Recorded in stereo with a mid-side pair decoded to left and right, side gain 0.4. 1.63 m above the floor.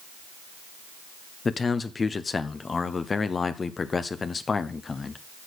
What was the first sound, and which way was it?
A man speaking, 35° left.